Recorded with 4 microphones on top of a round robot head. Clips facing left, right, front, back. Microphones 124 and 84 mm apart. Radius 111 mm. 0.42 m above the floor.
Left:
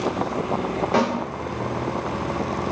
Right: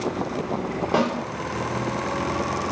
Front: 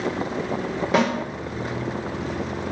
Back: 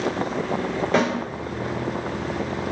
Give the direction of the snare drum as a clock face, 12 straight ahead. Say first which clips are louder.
Left 1 dB, front 1 dB; 2 o'clock.